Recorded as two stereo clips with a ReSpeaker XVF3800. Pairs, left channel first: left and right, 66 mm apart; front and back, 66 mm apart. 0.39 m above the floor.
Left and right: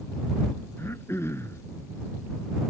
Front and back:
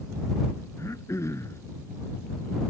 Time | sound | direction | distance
0.8 | throat clearing | 40° left | ?